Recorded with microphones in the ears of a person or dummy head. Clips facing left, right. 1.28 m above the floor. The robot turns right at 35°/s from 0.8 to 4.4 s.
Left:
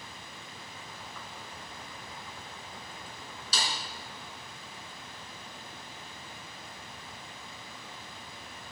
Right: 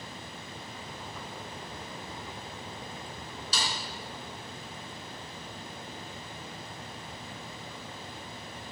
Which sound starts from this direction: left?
A snare drum, at 3.5 s.